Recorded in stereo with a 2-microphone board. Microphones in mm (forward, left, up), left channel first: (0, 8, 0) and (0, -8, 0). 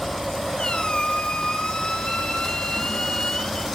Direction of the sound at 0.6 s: 75° left (ahead or behind).